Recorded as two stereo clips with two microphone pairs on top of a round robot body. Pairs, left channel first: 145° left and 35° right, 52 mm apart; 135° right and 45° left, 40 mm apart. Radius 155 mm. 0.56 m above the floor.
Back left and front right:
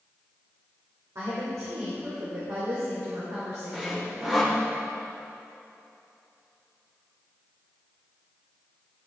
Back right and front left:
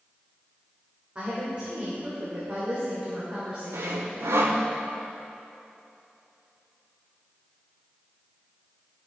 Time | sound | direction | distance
1.1 | a woman speaking | 15° right | 2.5 m
3.7 | sawing | 50° left | 0.5 m